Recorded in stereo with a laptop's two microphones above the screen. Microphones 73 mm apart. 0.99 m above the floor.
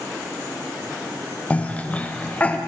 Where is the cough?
20° left (ahead or behind), 0.6 m.